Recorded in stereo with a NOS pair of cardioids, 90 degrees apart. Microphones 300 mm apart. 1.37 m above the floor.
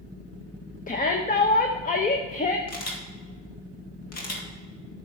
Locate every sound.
0.9 s a shout: 30° left, 1.0 m
2.7 s a camera shutter: 55° left, 2.5 m